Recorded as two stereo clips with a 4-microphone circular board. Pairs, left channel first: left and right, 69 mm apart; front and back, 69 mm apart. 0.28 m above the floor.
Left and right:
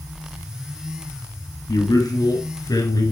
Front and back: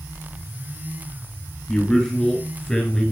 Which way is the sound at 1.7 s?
80° left.